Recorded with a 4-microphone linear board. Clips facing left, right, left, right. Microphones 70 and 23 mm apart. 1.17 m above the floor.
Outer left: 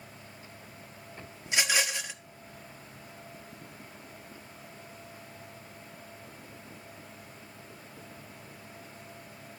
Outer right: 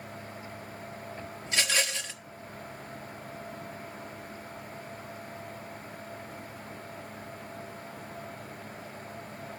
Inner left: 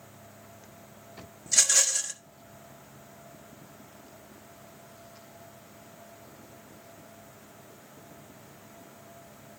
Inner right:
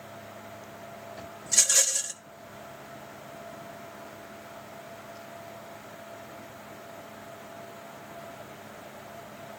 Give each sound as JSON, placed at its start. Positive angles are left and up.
{"t": 1.5, "sound": "a rattle", "side_deg": 15, "distance_m": 1.2}